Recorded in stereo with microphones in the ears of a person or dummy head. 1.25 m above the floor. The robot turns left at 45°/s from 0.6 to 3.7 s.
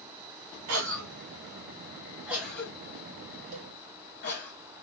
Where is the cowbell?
40° right (ahead or behind), 1.3 m; by 3.7 s 50° right (ahead or behind), 1.3 m.